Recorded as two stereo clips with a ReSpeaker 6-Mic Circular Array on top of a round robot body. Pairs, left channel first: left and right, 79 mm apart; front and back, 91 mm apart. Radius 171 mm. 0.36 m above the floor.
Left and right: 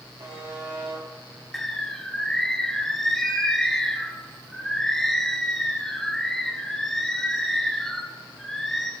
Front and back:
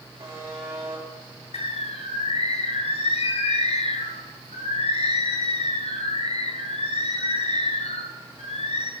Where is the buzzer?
125° right, 4 m.